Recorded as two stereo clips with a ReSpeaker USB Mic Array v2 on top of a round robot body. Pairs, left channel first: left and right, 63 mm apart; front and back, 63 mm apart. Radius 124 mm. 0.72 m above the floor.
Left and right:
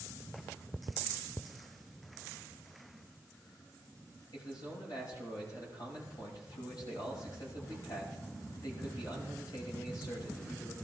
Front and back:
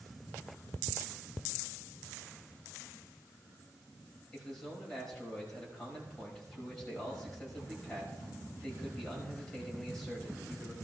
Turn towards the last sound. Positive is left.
turn(degrees=80)